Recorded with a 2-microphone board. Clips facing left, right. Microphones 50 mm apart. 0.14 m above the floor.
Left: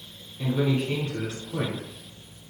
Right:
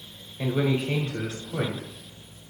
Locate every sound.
0.4 s a man speaking: 20° right (ahead or behind), 1.0 m